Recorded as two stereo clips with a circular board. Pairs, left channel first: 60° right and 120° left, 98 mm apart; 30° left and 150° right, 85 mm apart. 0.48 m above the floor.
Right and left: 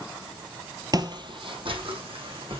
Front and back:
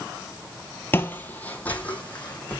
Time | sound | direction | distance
0.9 | footsteps | 85° left | 0.7 m